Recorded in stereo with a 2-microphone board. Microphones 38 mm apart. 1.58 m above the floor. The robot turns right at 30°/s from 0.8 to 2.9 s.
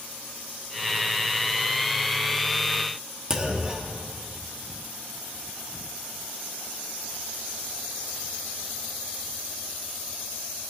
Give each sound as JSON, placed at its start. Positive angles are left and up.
{"t": 3.3, "sound": "a clunk", "side_deg": -20, "distance_m": 1.1}